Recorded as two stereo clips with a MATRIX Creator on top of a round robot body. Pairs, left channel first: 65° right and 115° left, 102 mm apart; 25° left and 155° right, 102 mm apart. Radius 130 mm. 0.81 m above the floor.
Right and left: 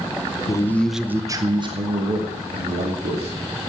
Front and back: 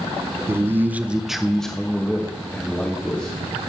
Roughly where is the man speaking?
Right.